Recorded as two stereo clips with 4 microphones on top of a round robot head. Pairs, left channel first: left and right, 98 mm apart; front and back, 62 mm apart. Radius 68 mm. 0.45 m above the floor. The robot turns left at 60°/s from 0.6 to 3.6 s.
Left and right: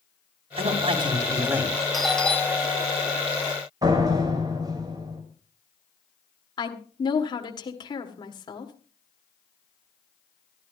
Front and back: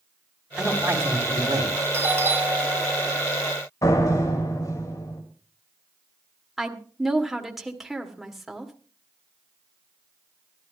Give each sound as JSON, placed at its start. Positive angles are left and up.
{"t": 0.6, "sound": "a man speaking", "azimuth_deg": -105, "distance_m": 3.0}
{"t": 1.9, "sound": "a doorbell", "azimuth_deg": -175, "distance_m": 1.9}
{"t": 3.8, "sound": "a door slam", "azimuth_deg": -35, "distance_m": 2.0}
{"t": 6.6, "sound": "a woman speaking", "azimuth_deg": 95, "distance_m": 1.7}